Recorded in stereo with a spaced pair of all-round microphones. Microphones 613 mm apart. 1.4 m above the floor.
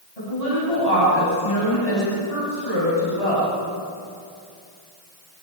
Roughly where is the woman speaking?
Left.